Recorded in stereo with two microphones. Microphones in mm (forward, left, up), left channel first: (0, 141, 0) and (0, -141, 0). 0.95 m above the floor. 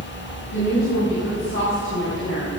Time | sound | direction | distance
0.5 | a woman speaking | 55° left (ahead or behind) | 5 m